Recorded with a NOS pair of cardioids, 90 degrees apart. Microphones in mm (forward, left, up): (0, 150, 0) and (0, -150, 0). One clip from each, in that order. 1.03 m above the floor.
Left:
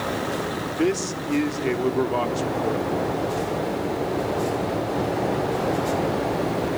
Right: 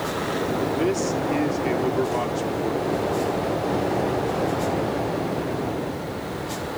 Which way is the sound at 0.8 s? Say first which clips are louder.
Right 1 dB; 15° left.